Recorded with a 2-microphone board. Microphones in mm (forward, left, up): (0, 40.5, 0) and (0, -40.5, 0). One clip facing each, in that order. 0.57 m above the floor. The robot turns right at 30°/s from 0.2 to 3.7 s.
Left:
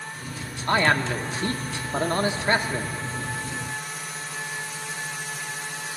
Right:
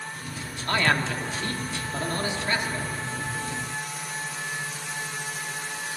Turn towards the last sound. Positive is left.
turn(degrees=135)